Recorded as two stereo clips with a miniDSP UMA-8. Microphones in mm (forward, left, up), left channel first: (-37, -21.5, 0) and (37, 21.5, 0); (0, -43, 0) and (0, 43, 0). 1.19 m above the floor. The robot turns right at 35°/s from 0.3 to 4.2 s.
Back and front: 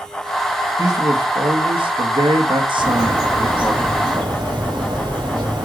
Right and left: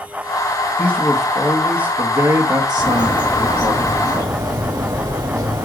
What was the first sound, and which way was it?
A man speaking, 15° right.